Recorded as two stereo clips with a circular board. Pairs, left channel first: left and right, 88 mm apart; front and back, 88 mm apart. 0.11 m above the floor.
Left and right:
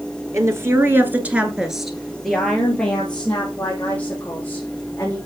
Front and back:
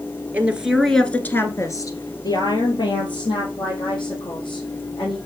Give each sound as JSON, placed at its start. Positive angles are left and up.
{"t": 0.3, "sound": "a woman speaking", "azimuth_deg": -120, "distance_m": 1.5}